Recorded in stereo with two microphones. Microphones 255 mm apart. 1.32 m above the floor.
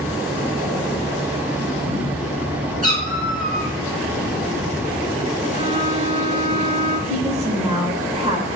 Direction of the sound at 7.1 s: 25° right (ahead or behind).